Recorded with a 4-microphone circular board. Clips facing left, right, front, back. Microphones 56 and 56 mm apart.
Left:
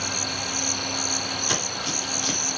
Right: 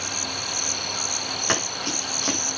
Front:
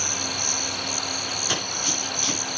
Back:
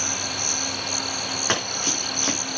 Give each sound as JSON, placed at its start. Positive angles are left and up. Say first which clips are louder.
{"t": 1.5, "sound": "running footsteps", "louder": "right 2 dB, back 4 dB", "azimuth_deg": -135, "distance_m": 7.5}